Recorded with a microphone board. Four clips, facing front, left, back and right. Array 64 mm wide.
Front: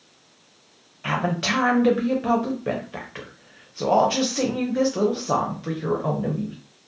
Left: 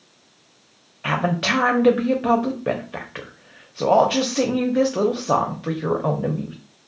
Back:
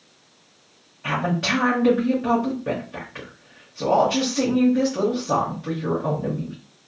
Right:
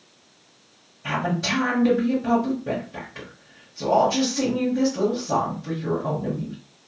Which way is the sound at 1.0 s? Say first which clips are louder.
Left 3 dB, back 1 dB; 75° left.